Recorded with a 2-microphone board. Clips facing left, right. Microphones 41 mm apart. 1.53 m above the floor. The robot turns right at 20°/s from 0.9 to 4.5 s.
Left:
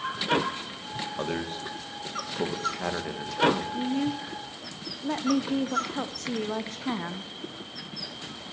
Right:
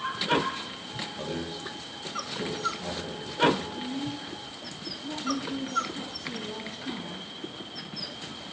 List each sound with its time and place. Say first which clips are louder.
1.2 s a man speaking: left 4 dB; 50° left (ahead or behind), 1.4 m; by 3.6 s 80° left, 1.4 m
3.7 s a woman speaking: left 6 dB; 80° left, 0.6 m; by 7.3 s 75° left (ahead or behind), 0.6 m